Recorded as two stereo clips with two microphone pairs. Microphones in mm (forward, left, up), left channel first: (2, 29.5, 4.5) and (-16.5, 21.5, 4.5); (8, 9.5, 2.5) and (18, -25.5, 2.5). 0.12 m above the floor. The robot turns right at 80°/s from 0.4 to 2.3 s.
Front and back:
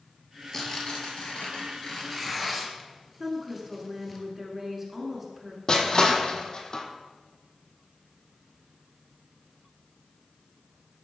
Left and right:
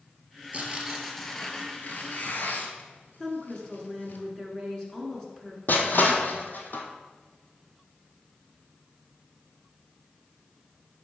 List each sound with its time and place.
0.5 s tearing paper: 30° right, 1.2 m; by 4.2 s 115° left, 1.2 m
3.2 s a woman speaking: 150° left, 1.6 m
5.7 s crushing: 80° left, 1.0 m